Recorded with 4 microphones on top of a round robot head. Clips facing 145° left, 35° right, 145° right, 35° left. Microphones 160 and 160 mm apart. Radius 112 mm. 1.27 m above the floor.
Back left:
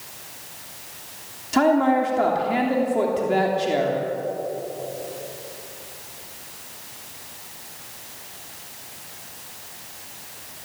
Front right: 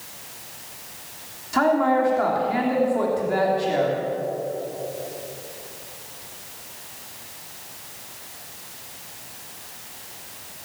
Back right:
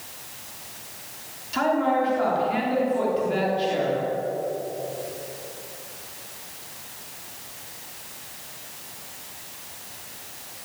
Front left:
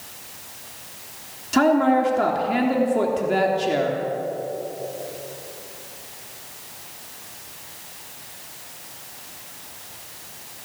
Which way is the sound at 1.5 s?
75° left.